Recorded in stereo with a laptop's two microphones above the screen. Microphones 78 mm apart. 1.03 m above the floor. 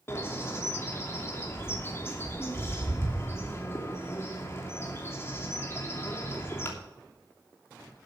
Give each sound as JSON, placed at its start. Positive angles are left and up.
{"t": 0.1, "sound": "a bird", "side_deg": 30, "distance_m": 2.5}